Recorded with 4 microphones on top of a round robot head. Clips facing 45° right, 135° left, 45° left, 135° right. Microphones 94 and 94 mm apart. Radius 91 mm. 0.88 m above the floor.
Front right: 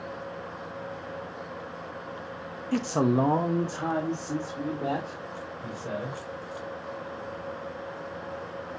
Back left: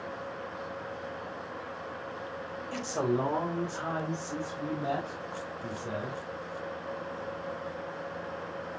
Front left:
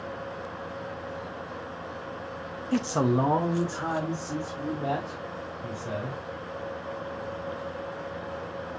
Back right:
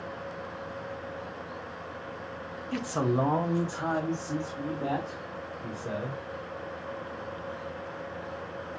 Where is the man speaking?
5° right, 0.8 m; by 6.2 s 80° right, 4 m.